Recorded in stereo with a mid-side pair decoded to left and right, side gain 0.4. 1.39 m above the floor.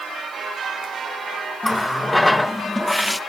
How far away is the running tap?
About 1.1 m.